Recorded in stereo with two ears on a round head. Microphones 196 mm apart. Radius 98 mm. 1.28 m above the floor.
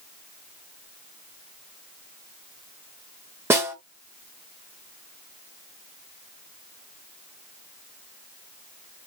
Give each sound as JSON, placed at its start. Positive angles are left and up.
{"t": 3.5, "sound": "a snare drum", "side_deg": -10, "distance_m": 1.0}